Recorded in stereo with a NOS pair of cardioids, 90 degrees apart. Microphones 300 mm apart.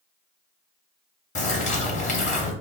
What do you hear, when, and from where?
1.4 s a bird: 25° left, 0.9 m